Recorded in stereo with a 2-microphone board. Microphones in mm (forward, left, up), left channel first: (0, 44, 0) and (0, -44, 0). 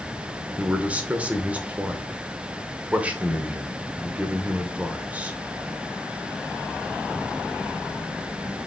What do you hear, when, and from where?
0.6 s a man speaking: 15° right (ahead or behind), 1.0 m